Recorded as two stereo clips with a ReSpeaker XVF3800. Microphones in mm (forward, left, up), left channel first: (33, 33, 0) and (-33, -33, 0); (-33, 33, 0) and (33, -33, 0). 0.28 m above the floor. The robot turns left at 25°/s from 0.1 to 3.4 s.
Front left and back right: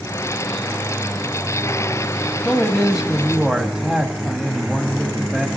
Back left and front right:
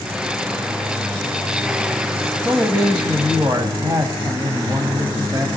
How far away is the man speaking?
About 1.3 m.